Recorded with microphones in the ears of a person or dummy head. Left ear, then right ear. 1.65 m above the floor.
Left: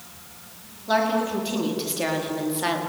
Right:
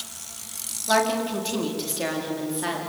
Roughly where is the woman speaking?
Right.